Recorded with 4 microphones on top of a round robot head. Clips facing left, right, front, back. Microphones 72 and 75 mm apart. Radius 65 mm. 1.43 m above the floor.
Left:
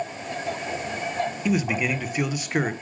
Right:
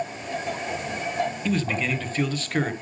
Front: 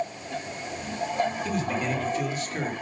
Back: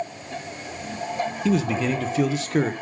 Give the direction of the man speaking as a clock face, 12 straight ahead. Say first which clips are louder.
Left 2 dB, back 5 dB; 6 o'clock.